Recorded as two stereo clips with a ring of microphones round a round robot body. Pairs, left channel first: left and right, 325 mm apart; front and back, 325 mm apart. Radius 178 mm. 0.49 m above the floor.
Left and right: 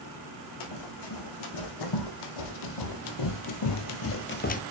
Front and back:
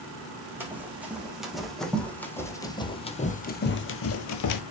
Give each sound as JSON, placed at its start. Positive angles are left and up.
{"t": 0.6, "sound": "running footsteps", "azimuth_deg": 95, "distance_m": 2.5}